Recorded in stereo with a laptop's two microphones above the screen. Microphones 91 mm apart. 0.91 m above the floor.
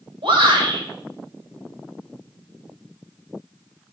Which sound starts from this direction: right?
A shout, at 0.2 s.